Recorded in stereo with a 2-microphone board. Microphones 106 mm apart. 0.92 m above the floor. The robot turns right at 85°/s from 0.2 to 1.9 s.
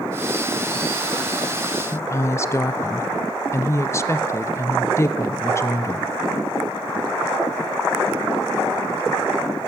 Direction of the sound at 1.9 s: 25° left (ahead or behind).